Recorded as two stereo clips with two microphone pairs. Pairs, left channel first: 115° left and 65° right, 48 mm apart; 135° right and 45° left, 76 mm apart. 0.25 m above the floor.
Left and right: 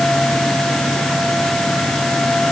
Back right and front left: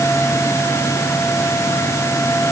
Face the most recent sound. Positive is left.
No sound to turn to.